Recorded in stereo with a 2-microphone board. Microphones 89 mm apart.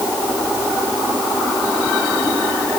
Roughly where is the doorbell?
I don't hear a doorbell.